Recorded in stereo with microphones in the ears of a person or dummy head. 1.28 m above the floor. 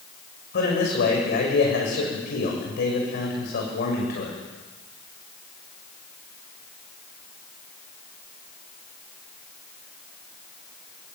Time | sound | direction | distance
0.5 | a man speaking | 55° left (ahead or behind) | 6.5 m